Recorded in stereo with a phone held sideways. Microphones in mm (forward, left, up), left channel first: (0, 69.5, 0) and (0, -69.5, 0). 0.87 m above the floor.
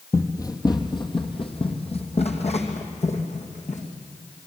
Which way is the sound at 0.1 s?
25° left (ahead or behind).